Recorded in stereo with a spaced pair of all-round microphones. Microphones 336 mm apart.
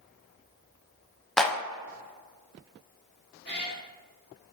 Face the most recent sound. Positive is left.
turn(degrees=30)  # may be behind; listen again after turning